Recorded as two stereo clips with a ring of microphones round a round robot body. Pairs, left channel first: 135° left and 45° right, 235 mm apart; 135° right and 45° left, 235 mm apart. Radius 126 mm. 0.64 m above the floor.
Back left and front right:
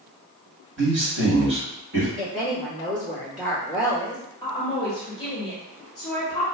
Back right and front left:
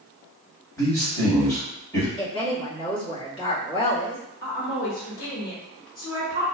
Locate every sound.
0.8 s a man speaking: 60° right, 1.7 m
2.2 s a woman speaking: 80° right, 1.4 m
4.4 s a woman speaking: 160° right, 1.1 m